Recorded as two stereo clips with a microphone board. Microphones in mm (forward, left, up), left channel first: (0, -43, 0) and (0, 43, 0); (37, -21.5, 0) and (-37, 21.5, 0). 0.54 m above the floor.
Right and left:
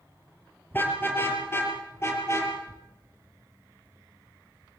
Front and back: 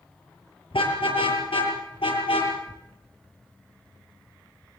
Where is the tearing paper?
20° right, 2.5 m.